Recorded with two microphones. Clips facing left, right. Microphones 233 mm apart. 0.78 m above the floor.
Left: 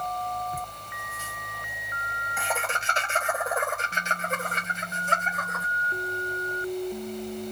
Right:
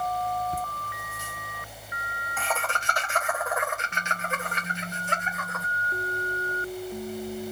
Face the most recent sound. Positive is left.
turn(degrees=50)  # may be behind; listen again after turning